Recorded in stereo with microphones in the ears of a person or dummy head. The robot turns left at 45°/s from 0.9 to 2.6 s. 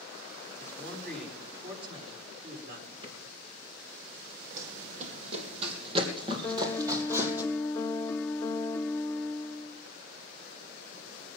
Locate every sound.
0.6 s a man speaking: 15° left, 5 m; by 2.9 s 60° right, 5 m
3.0 s a drawer: 25° right (ahead or behind), 4.5 m
4.6 s running footsteps: 50° right (ahead or behind), 3.5 m; by 7.4 s 10° right (ahead or behind), 3.5 m
6.4 s a piano: 10° left (ahead or behind), 0.7 m